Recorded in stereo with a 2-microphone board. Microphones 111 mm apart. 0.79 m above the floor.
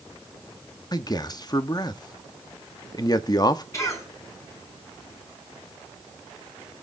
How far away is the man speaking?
About 0.9 m.